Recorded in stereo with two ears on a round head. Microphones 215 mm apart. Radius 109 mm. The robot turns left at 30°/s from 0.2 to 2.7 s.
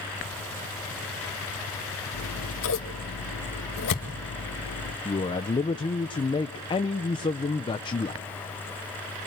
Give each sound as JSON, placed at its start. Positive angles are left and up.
{"t": 2.1, "sound": "scissors", "side_deg": 75, "distance_m": 1.8}
{"t": 5.0, "sound": "a man speaking", "side_deg": 20, "distance_m": 0.6}